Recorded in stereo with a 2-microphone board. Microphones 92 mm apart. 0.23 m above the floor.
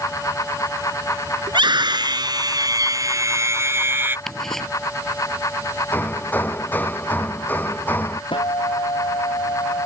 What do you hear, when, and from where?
1.5 s a scream: 60° right (ahead or behind); by 4.2 s 25° right (ahead or behind)
4.3 s ticking: 5° left (ahead or behind)
5.9 s hammering: 20° left (ahead or behind)
8.3 s a guitar: 65° left (ahead or behind)